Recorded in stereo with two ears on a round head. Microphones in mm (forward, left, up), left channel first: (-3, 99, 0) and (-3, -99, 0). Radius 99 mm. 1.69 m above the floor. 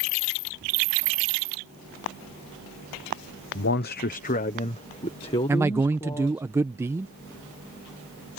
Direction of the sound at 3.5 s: 55° left (ahead or behind).